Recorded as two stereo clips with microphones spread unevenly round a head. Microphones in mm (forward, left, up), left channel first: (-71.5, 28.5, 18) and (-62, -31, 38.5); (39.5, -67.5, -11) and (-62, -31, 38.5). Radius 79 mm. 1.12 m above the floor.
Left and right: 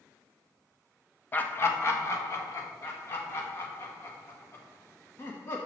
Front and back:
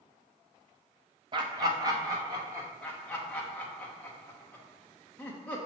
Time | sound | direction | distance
1.3 | laughter | 90° left | 0.6 m
2.8 | laughter | 55° left | 0.8 m